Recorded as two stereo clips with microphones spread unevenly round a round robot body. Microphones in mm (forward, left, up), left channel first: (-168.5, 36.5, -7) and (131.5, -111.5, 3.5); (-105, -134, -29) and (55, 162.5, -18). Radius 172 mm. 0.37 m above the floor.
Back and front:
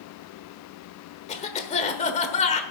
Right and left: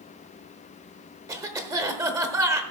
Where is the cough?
130° left, 1.1 m.